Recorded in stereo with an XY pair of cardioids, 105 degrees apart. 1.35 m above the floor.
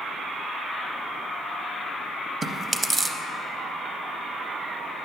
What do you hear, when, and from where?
2.4 s chewing: 25° right, 0.6 m